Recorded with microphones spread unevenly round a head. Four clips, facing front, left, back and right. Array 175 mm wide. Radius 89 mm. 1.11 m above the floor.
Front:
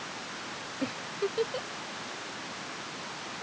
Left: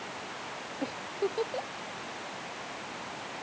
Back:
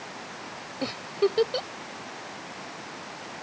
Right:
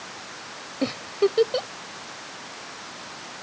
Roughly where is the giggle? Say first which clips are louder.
Right 10 dB, back 7 dB; behind right.